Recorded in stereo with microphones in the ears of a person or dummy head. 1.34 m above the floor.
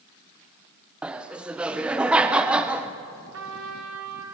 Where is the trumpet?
75° right (ahead or behind), 3 m.